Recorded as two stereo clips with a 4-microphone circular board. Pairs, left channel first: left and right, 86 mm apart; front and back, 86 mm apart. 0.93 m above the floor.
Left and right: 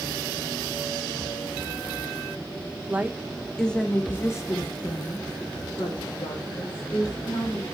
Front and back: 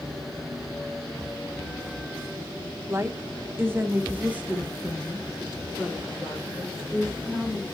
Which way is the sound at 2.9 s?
145° right.